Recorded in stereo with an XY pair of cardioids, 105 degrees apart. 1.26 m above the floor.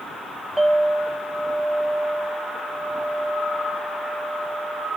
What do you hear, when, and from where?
0.6 s a clink: 10° right, 3.5 m